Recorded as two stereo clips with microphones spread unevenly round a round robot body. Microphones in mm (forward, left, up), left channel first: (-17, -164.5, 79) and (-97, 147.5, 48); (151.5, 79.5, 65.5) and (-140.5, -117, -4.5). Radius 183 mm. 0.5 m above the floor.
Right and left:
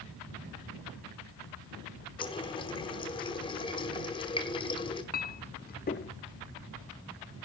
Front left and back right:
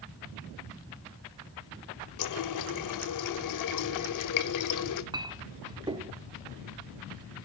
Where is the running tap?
Straight ahead, 1.1 m.